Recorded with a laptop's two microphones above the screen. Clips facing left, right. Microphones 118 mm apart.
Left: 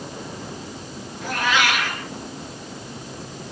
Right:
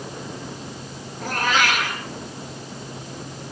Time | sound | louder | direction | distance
1.2 | a cat meowing | even | 45° right (ahead or behind) | 5 m